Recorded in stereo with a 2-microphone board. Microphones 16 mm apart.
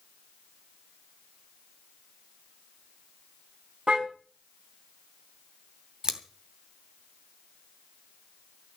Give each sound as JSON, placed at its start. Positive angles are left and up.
{"t": 3.9, "sound": "a car horn", "side_deg": -75, "distance_m": 3.0}
{"t": 6.0, "sound": "scissors", "side_deg": -35, "distance_m": 2.5}